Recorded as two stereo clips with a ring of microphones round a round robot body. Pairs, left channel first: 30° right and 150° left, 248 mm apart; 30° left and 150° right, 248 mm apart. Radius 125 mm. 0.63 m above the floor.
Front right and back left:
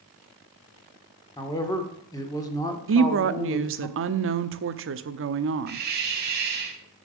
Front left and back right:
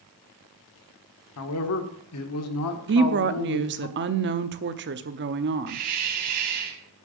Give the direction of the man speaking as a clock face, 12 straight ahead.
11 o'clock.